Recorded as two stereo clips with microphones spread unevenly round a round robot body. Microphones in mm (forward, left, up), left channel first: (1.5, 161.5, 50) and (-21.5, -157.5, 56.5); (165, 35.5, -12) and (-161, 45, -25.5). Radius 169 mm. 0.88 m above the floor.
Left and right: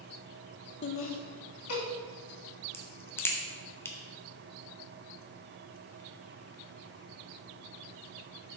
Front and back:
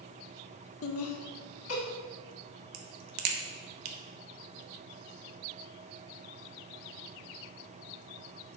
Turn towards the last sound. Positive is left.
turn(degrees=170)